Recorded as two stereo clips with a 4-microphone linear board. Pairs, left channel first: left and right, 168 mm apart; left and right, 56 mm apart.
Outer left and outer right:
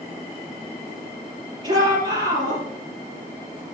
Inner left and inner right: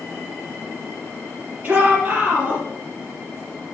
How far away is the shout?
About 3.5 m.